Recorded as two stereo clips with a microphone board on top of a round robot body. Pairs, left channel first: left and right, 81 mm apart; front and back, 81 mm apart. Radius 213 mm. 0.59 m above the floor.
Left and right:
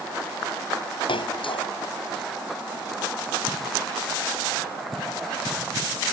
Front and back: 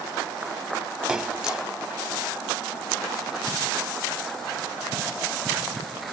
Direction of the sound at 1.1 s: 100° left.